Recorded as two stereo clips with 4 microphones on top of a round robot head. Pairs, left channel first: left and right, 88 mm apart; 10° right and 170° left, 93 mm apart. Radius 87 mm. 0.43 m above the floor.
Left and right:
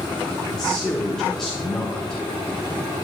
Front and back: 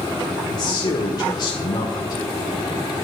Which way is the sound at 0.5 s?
10° left.